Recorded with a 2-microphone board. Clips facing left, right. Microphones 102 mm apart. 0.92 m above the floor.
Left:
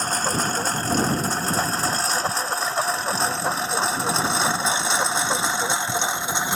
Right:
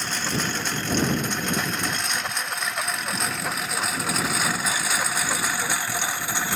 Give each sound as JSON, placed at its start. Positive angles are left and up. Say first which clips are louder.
{"t": 0.0, "sound": "a lawn mower", "louder": "left 4 dB", "side_deg": 40}